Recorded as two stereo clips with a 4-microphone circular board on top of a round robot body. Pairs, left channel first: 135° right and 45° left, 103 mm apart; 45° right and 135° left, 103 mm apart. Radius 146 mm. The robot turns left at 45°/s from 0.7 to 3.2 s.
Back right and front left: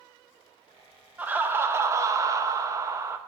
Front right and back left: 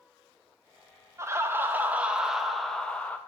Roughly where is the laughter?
Left.